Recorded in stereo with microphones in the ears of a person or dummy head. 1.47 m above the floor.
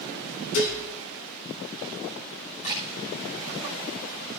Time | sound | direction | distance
0.5 | dishes clattering | 70° left (ahead or behind) | 3 m
2.6 | a camera shutter | 40° left (ahead or behind) | 6.5 m